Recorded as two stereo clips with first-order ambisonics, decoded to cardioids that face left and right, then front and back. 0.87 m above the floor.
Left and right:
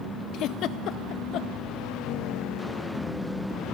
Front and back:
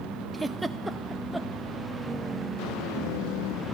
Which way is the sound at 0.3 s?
95° left.